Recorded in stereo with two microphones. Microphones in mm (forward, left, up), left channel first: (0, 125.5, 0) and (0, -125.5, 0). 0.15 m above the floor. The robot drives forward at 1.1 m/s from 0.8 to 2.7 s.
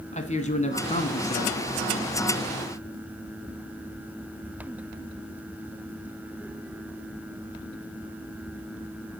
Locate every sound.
0.1 s a man speaking: 25° left (ahead or behind), 1.3 m